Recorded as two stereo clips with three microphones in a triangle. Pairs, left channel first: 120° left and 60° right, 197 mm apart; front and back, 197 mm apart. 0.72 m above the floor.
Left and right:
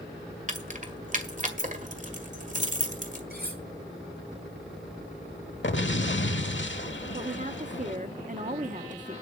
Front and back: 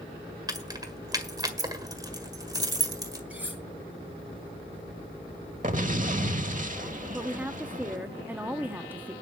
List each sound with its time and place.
0.5 s keys jangling: 110° right, 1.7 m
3.3 s cutlery clinking: 95° right, 5.5 m
5.6 s an explosion: 135° left, 0.9 m
7.1 s a woman speaking: 100° right, 1.0 m